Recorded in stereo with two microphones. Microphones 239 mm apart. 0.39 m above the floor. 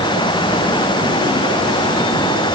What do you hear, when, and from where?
Only background noise.